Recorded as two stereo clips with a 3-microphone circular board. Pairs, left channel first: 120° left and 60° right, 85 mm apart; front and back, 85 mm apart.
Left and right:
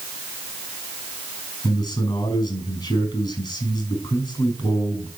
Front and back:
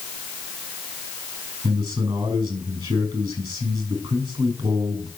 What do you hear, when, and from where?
1.6 s a man speaking: 140° left, 5 m